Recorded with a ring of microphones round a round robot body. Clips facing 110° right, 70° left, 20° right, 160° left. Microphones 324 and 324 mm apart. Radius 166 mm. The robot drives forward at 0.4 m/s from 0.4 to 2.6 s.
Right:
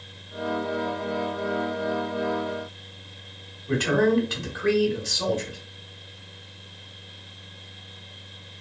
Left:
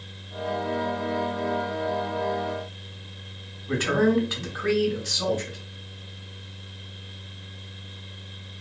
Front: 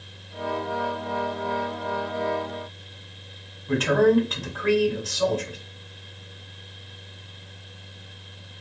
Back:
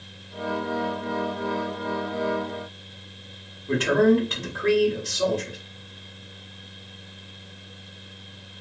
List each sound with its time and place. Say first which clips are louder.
3.7 s a man speaking: right 1 dB, even; 140° right, 1.3 m